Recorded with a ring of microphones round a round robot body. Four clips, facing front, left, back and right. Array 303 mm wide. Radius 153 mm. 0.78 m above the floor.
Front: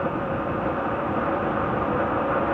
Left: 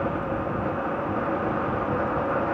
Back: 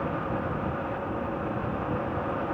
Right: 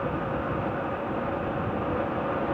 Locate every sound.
Only background noise.